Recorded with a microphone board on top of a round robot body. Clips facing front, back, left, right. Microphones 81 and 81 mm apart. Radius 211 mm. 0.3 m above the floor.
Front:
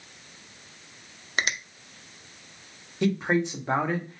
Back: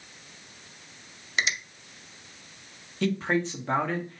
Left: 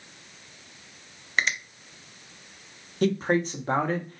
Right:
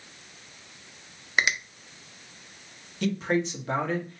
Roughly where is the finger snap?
Ahead.